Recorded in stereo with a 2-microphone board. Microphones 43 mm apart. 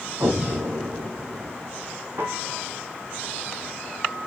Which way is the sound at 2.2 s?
65° right (ahead or behind).